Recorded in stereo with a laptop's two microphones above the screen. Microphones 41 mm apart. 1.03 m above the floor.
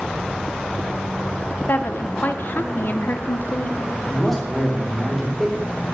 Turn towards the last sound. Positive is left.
turn(degrees=5)  # may be behind; listen again after turning